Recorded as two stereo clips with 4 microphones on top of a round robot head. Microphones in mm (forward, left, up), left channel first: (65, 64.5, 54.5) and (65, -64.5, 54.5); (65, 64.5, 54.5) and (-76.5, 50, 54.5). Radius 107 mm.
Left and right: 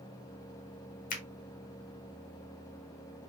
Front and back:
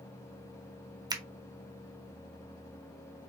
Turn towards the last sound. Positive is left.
turn(degrees=125)